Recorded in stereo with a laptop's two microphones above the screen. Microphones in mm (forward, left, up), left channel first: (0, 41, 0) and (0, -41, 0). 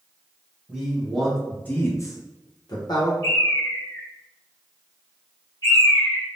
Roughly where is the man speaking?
Centre.